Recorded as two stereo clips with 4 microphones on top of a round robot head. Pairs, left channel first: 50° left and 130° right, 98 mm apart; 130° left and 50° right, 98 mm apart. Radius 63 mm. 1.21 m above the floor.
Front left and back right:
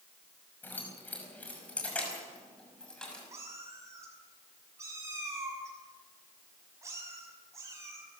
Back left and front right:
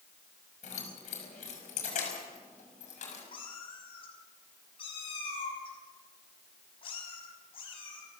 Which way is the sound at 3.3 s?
165° left.